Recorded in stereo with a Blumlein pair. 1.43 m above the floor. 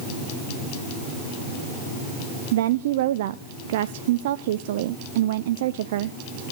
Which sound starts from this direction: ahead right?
A woman speaking, at 2.5 s.